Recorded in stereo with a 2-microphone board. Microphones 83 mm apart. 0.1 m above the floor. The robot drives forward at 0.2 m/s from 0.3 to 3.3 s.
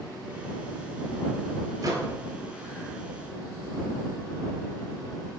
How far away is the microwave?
About 1.3 m.